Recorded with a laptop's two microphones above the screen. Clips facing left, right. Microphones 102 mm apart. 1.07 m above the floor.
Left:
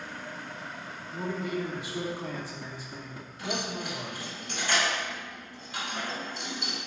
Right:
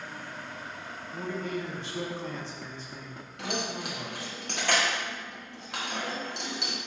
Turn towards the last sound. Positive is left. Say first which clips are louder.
# even
turn(degrees=-70)  # may be behind; listen again after turning